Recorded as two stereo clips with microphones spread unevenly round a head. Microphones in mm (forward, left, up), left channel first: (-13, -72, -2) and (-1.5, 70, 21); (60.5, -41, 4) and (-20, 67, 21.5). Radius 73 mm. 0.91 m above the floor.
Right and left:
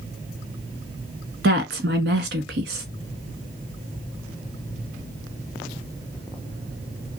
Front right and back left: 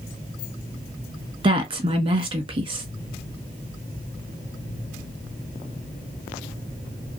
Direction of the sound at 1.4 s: 75° left.